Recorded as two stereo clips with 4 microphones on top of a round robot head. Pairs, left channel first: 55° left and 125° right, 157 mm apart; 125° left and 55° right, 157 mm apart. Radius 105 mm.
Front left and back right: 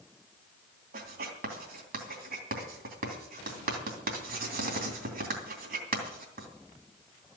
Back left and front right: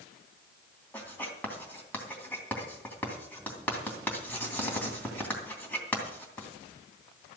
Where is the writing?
155° right, 3 m.